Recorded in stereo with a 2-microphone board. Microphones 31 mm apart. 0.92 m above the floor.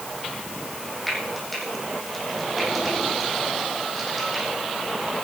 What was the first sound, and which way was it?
Frying, centre (ahead or behind).